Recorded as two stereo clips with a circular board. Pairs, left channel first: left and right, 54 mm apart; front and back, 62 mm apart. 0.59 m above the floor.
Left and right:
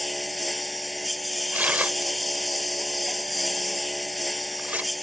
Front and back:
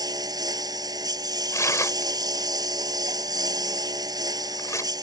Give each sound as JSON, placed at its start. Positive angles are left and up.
{"t": 0.0, "sound": "a lawn mower", "azimuth_deg": 180}
{"t": 1.5, "sound": "tearing paper", "azimuth_deg": -35}